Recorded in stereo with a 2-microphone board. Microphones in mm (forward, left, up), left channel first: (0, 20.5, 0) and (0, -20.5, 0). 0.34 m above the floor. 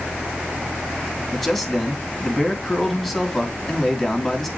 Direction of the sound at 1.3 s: 5° left (ahead or behind).